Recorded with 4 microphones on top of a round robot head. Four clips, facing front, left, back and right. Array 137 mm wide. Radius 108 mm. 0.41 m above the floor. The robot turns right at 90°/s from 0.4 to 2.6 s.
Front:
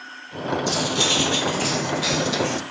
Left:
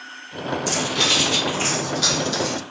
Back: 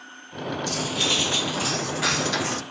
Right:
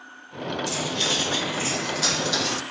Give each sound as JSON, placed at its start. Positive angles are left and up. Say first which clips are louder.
{"t": 0.7, "sound": "cutlery clinking", "louder": "left 5 dB, front 4 dB", "azimuth_deg": 40, "distance_m": 0.6}